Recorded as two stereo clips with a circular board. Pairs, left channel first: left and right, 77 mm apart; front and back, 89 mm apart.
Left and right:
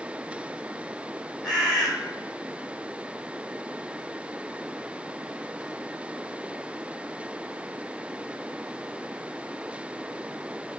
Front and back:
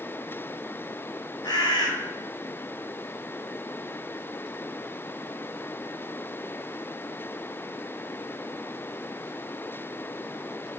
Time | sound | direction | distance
1.4 | a bird | 5° left | 1.3 m